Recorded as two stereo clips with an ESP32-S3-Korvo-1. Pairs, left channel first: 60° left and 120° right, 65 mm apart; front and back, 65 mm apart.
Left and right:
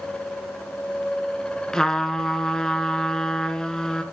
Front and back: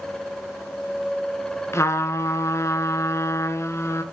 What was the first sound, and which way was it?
A trumpet, 20° right.